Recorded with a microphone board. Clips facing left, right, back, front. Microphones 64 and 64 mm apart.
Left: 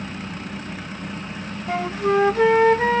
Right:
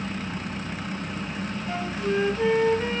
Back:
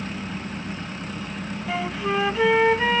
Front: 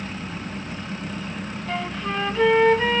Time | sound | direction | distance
1.7 | a flute | 95° left | 0.5 m